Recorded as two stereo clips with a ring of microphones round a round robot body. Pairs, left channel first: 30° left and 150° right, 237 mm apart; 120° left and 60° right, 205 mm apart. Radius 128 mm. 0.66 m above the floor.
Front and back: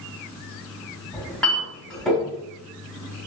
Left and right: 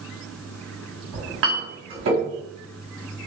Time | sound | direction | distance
1.1 | a clink | 55° right | 1.4 m